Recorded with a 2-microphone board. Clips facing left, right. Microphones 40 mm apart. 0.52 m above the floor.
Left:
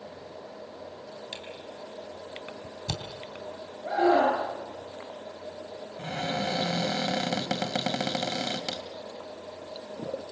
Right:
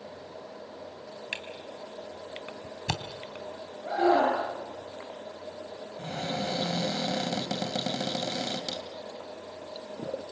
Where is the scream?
20° left (ahead or behind), 8 m.